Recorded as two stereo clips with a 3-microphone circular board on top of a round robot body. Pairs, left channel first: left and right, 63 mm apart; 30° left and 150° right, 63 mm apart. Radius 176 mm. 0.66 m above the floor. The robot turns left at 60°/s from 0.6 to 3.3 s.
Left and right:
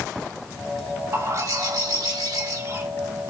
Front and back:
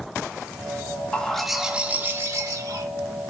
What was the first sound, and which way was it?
A bird, 40° right.